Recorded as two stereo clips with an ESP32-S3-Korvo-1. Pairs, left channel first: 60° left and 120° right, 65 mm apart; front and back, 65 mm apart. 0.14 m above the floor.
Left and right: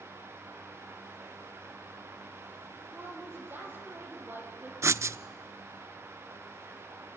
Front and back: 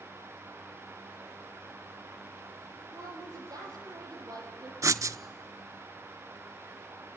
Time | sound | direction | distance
2.9 | a woman speaking | 175° right | 6 m
4.8 | writing | 155° right | 0.5 m